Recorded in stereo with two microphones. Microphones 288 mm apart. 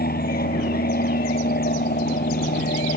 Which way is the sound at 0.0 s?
30° left (ahead or behind).